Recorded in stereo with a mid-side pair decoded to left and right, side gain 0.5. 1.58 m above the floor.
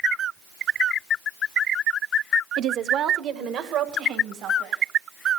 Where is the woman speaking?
60° right, 0.6 m; by 4.8 s 80° right, 3 m.